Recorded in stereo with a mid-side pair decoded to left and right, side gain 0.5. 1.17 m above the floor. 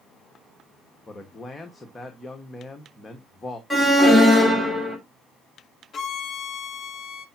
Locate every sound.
1.1 s a man speaking: 20° left, 1.6 m
3.7 s an alarm: straight ahead, 3 m
5.9 s a violin: 45° left, 1.4 m